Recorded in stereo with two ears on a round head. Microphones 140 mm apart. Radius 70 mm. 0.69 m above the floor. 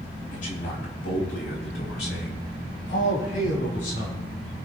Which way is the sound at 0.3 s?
50° left (ahead or behind).